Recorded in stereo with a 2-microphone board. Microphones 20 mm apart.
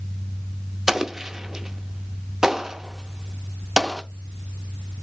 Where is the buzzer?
I don't hear a buzzer.